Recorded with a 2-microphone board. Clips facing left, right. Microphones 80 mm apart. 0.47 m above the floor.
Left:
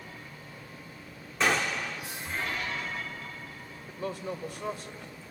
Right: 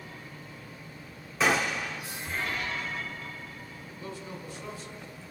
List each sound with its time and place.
1.4 s a gunshot: 5° right (ahead or behind), 1.0 m
3.9 s a woman speaking: 60° left (ahead or behind), 1.8 m